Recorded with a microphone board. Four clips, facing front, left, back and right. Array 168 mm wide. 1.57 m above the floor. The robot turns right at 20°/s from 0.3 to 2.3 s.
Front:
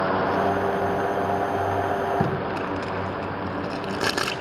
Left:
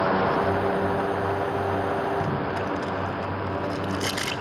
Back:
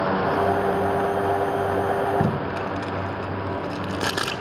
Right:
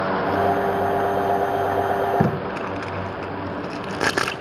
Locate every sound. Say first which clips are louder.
2.2 s tape being pulled: right 3 dB, back 1 dB; 85° right, 1.8 m